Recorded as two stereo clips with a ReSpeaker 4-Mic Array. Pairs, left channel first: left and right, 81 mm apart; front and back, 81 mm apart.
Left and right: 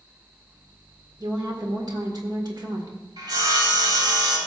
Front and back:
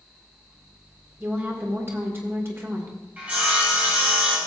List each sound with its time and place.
1.2 s a woman speaking: 120° right, 1.7 m
3.2 s sawing: 110° right, 3 m